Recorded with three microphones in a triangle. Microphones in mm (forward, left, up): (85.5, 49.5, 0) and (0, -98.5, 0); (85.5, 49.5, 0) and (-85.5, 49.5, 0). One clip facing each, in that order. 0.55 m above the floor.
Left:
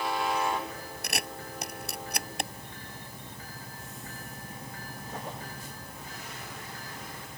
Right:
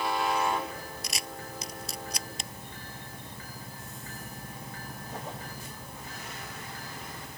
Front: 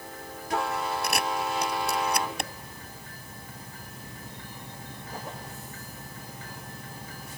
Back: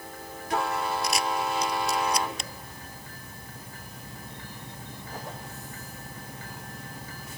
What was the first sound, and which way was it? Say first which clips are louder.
A camera shutter: left 3 dB, back 1 dB; 30° left.